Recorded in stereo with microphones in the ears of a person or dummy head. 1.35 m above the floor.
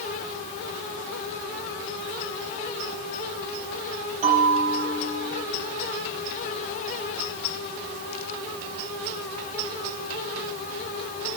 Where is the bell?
40° right (ahead or behind), 5.5 m.